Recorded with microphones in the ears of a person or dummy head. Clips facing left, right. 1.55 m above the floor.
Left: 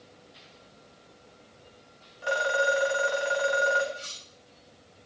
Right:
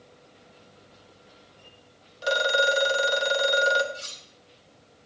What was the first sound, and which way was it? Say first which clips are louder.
A phone ringing: right 2 dB; 50° right (ahead or behind).